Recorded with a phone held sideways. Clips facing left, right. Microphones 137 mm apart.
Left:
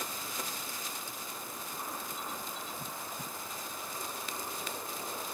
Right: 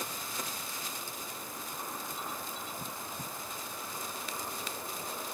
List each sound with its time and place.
Only background noise.